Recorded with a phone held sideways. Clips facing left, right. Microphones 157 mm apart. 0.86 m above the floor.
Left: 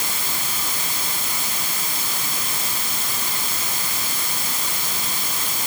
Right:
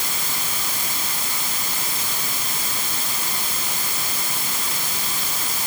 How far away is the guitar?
No guitar in this recording.